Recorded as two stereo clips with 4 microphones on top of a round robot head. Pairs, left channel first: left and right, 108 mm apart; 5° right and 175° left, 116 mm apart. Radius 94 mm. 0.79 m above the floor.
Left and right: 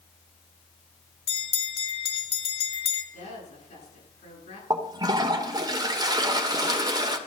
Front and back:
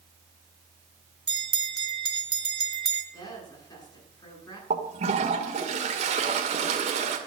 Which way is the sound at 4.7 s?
145° right.